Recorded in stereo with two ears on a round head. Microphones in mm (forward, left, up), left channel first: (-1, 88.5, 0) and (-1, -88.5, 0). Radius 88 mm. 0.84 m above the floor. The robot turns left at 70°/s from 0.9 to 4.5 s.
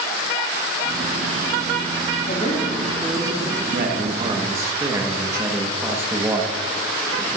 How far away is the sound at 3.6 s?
About 1.4 m.